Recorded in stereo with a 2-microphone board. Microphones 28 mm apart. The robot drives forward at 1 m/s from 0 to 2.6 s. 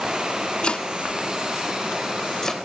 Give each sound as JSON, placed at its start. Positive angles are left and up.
{"t": 0.6, "sound": "chopping", "side_deg": 35}